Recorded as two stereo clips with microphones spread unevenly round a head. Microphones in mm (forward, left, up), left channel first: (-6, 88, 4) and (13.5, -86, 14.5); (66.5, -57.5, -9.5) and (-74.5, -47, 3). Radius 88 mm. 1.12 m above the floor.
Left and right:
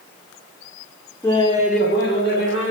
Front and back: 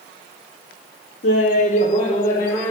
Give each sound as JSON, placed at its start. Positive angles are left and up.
{"t": 1.2, "sound": "laughter", "azimuth_deg": 20, "distance_m": 0.7}